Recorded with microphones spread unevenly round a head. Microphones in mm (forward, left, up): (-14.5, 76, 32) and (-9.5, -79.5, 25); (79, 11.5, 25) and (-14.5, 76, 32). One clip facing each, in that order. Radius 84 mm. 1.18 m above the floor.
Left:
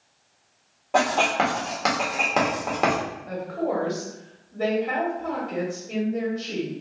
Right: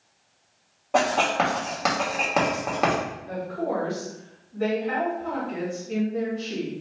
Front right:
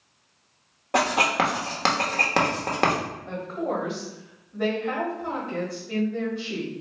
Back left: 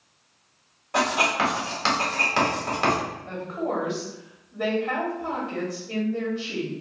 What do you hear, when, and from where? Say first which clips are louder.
0.9 s writing: even, front right 1 dB; straight ahead, 1.1 m
3.3 s a woman speaking: left 2 dB, front right 1 dB; 70° left, 1.7 m